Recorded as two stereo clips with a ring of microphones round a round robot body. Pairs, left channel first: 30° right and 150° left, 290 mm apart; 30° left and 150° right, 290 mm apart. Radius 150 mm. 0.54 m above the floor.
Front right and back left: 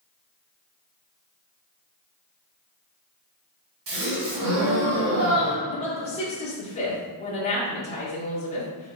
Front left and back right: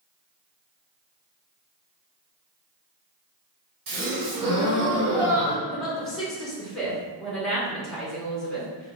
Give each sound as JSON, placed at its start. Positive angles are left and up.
{"t": 3.9, "sound": "a gasp", "azimuth_deg": -165, "distance_m": 1.6}
{"t": 5.7, "sound": "a woman speaking", "azimuth_deg": -55, "distance_m": 0.9}